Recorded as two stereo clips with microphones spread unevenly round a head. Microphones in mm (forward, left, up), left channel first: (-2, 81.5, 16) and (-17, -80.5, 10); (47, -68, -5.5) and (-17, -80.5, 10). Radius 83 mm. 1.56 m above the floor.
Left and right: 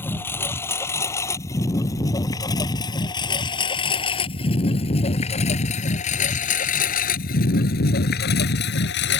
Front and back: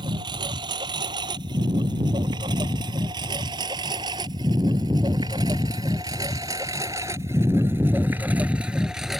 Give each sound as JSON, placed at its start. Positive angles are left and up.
{"t": 0.0, "sound": "a lawn mower", "azimuth_deg": 165}